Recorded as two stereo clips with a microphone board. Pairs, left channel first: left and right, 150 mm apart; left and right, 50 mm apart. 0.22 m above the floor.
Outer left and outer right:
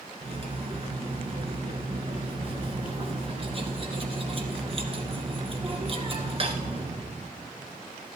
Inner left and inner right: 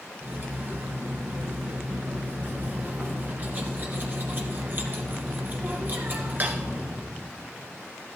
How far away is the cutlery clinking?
About 2.0 m.